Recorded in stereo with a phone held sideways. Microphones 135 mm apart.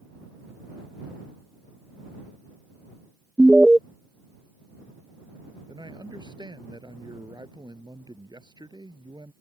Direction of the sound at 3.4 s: 5° right (ahead or behind).